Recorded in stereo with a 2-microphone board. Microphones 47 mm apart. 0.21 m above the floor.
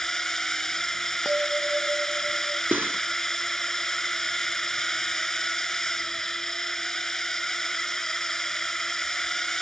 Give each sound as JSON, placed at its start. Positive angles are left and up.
{"t": 0.0, "sound": "a drone", "side_deg": 10}
{"t": 1.2, "sound": "a bell", "side_deg": -30}
{"t": 2.7, "sound": "cutlery clinking", "side_deg": -40}